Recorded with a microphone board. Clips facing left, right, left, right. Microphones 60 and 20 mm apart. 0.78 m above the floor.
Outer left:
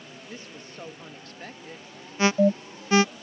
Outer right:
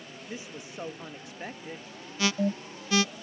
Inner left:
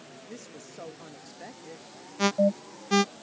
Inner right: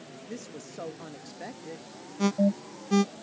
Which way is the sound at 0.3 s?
10° right (ahead or behind).